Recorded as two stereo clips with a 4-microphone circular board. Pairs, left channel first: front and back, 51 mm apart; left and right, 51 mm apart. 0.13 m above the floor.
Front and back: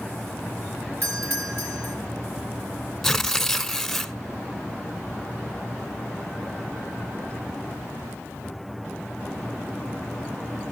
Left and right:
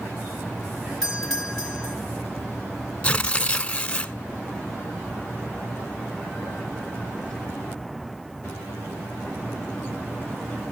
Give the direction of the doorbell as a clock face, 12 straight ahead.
6 o'clock.